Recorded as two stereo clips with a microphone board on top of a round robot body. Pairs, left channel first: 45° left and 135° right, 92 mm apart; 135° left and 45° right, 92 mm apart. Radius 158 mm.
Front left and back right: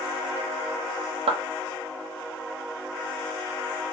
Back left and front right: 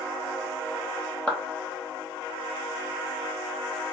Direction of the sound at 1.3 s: 145° right.